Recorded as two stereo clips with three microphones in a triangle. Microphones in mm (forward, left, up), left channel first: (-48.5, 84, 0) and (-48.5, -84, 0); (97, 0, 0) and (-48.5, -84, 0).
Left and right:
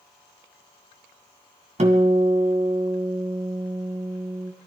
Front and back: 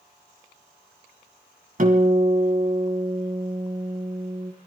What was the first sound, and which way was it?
A guitar, 130° right.